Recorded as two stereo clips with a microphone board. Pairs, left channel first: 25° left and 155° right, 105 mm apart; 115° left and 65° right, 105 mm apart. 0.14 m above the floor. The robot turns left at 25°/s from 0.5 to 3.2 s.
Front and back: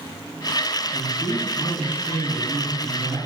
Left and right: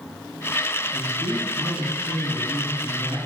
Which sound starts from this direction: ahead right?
A man speaking, at 0.9 s.